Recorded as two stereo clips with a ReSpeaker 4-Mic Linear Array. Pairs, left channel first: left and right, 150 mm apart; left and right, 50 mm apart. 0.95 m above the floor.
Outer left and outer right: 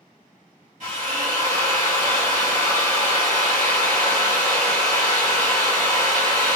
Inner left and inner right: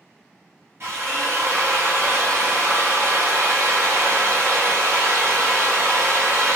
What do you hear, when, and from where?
0.8 s a drill: 50° right (ahead or behind), 1.7 m